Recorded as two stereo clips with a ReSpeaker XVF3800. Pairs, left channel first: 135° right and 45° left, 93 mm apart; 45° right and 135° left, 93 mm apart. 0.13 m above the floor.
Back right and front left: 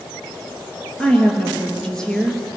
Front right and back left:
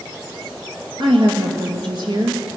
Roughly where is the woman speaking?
Behind left.